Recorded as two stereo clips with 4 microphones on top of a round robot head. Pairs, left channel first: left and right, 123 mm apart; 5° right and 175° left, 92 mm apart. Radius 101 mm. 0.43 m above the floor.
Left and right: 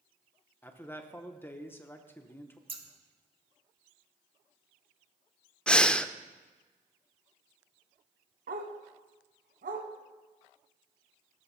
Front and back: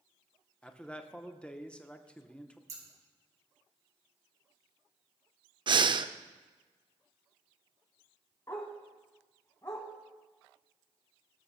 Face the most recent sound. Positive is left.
turn(degrees=-75)